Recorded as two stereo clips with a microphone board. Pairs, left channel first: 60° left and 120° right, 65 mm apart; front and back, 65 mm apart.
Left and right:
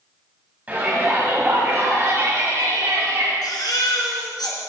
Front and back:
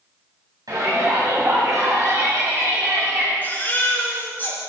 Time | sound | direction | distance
0.7 | a shout | 175° left | 3 m
3.4 | a baby crying | 60° left | 3 m